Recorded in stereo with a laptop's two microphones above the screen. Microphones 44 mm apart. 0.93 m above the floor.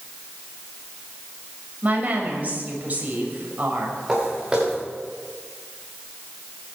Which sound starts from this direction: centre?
Footsteps, at 4.1 s.